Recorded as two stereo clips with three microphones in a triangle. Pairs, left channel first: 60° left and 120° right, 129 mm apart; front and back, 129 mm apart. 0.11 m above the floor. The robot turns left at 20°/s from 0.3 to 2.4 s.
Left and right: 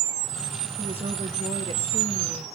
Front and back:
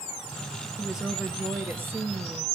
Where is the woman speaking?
90° right, 3 m; by 2.5 s 125° right, 3 m.